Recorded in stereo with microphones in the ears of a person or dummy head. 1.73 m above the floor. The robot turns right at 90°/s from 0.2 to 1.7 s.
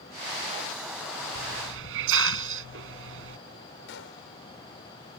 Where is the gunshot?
70° left (ahead or behind).